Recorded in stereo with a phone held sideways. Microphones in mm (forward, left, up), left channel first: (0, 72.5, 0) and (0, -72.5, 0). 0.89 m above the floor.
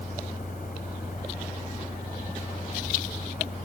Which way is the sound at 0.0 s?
85° left.